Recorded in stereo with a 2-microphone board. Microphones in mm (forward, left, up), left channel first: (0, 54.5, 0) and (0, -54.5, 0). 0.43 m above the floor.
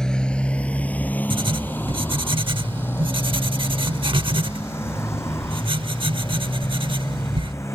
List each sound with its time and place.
0.0 s a motorcycle: 5° left (ahead or behind); by 7.8 s 25° left (ahead or behind)
1.3 s writing: 50° right (ahead or behind)